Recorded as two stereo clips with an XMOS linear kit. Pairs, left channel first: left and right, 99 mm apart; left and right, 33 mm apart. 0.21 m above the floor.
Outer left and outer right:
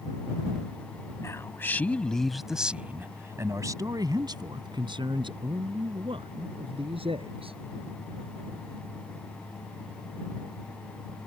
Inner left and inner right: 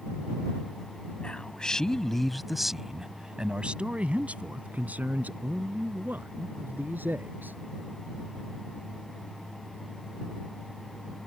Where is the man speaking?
30° left (ahead or behind); by 7.6 s 70° right (ahead or behind).